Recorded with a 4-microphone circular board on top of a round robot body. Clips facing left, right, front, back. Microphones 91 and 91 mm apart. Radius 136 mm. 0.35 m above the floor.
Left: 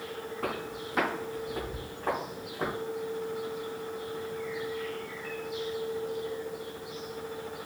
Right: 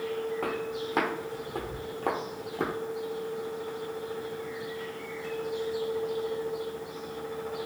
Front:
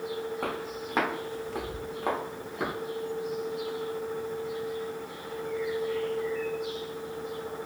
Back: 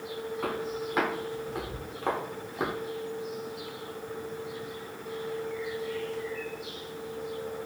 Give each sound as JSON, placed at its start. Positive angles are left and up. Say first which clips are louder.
{"t": 0.4, "sound": "footsteps", "louder": "right 3 dB, back 1 dB", "azimuth_deg": -60, "distance_m": 1.8}